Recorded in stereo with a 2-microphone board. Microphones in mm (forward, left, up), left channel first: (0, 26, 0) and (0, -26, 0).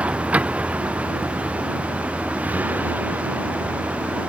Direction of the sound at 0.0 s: 25° right (ahead or behind).